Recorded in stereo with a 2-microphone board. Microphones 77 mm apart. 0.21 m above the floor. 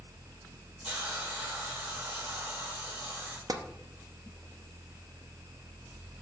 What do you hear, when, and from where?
0.8 s a hiss: 20° right (ahead or behind), 5.5 m
3.5 s tapping: 60° right (ahead or behind), 1.0 m